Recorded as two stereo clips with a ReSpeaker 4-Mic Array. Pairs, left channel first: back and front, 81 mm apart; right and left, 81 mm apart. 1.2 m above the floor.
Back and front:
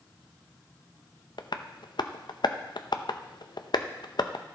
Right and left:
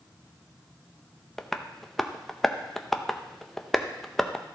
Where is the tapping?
175° right, 0.6 m.